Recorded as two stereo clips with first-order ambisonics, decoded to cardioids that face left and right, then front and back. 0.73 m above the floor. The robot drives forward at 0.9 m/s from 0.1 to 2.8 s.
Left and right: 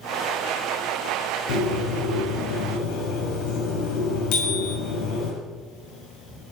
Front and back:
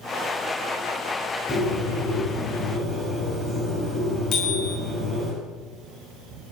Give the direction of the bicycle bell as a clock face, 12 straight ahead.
10 o'clock.